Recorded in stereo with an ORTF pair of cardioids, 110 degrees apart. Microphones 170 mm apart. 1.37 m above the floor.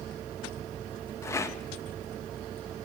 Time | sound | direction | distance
1.2 | a rattle | 15° left | 1.8 m